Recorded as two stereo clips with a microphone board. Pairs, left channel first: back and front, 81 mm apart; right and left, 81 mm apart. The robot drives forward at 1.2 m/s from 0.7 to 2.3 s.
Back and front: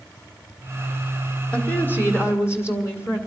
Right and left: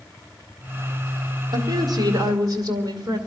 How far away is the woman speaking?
About 2 m.